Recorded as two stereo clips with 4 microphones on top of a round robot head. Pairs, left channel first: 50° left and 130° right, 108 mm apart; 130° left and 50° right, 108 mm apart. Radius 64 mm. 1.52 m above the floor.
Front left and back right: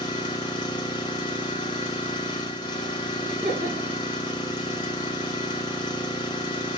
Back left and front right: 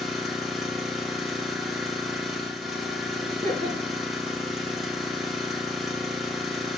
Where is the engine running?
40° left, 1.2 m.